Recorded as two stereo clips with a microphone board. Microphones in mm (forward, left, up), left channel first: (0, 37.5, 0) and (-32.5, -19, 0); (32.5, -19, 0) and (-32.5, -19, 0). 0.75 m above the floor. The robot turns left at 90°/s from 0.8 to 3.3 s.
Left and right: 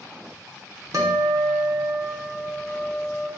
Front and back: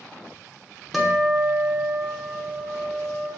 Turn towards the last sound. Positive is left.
turn(degrees=60)